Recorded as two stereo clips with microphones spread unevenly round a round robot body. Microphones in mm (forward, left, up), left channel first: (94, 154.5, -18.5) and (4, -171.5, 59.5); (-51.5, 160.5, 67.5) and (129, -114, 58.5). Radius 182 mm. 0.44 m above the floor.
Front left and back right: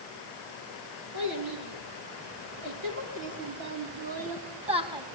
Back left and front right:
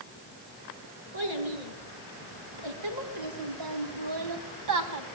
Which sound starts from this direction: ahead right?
A child speaking, at 1.1 s.